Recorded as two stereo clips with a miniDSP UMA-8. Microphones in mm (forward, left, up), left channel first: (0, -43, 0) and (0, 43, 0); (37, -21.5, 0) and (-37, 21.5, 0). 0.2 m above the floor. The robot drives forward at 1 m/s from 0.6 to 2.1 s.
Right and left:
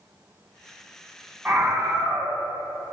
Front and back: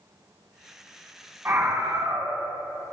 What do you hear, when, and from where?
1.4 s a scream: 140° left, 1.5 m; by 2.4 s 160° left, 1.9 m